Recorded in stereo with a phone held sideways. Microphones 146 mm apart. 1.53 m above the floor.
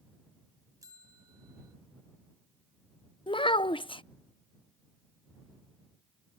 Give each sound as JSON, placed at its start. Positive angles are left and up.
{"t": 0.8, "sound": "a bell", "side_deg": -25}
{"t": 3.3, "sound": "a child speaking", "side_deg": 35}